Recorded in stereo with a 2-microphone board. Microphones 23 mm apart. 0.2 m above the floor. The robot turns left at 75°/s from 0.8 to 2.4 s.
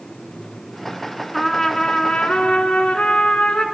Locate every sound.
1.3 s a trumpet: 175° left, 0.6 m; by 3.6 s 95° left, 0.6 m